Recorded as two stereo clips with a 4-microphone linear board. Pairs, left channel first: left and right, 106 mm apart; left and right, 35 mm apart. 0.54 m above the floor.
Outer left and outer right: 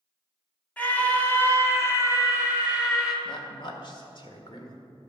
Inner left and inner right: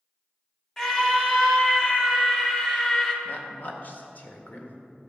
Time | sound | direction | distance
0.8 | a scream | 15° left (ahead or behind) | 1.5 m
3.2 | a woman speaking | 50° left (ahead or behind) | 1.6 m